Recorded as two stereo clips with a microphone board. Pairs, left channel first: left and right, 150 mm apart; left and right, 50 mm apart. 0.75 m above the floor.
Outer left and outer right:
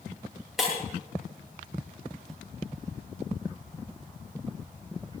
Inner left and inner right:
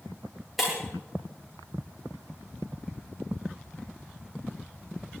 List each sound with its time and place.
0.6 s breaking glass: centre (ahead or behind), 9 m